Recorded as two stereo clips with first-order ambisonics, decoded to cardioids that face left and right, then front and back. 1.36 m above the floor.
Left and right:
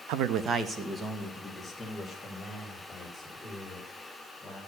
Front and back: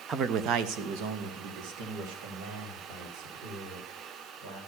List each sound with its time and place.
0.1 s a man speaking: 110° right, 0.7 m; by 4.6 s 170° left, 7 m